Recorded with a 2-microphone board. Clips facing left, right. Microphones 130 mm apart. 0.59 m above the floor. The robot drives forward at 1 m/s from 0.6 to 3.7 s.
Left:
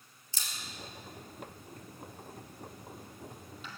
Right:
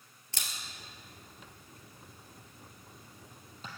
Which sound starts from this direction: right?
A camera shutter, at 0.3 s.